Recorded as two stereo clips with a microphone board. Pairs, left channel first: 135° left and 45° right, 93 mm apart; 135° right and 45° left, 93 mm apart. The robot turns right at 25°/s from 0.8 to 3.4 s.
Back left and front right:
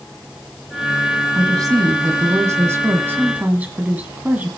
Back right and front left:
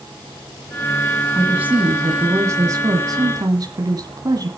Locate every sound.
1.4 s a woman speaking: 30° right, 1.5 m; by 4.5 s 20° left, 1.5 m